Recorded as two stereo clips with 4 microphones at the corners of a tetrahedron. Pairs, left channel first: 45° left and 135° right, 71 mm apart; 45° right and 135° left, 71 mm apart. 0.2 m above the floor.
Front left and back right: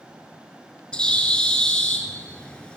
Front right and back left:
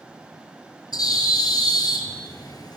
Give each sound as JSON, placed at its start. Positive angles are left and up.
{"t": 0.9, "sound": "a bird", "azimuth_deg": -30, "distance_m": 1.1}